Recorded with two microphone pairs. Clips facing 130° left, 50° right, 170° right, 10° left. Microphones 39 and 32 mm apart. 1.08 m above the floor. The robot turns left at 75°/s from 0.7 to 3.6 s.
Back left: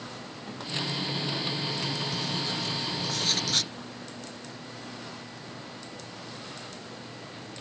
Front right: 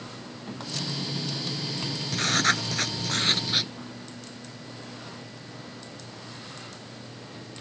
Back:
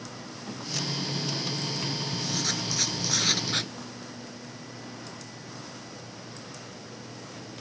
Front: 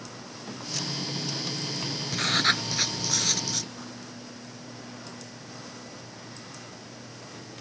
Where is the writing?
15° right; by 3.7 s 125° right.